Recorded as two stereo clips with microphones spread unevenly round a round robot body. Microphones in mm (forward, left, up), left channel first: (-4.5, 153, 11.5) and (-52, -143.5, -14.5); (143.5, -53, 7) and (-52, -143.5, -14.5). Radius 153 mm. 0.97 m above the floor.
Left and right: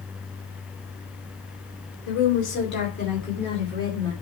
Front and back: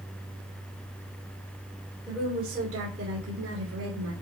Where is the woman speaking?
125° left, 2.5 m; by 4.1 s 165° left, 2.5 m.